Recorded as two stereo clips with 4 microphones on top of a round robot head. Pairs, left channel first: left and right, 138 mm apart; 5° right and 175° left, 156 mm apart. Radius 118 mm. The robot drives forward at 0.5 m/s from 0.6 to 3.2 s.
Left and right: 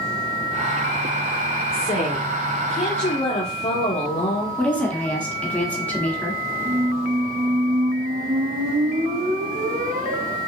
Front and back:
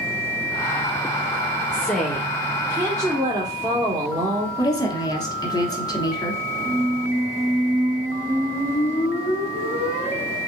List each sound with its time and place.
1.7 s a woman speaking: 75° left, 1.2 m; by 4.5 s 120° left, 1.2 m
4.6 s a woman speaking: 20° left, 1.2 m
6.7 s a squeak: 115° right, 1.4 m